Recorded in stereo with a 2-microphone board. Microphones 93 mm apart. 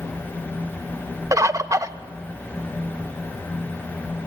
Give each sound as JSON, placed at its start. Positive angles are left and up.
{"t": 1.3, "sound": "a bird", "side_deg": -35, "distance_m": 0.6}